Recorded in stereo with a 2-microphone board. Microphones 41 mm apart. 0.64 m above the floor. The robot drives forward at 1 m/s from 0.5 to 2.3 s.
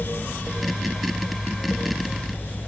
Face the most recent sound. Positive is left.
No sound to turn to.